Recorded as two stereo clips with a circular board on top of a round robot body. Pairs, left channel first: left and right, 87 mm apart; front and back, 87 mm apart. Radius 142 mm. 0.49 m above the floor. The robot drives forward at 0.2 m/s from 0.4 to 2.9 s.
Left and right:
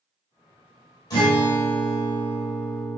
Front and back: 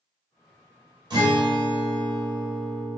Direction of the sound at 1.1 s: 140° left.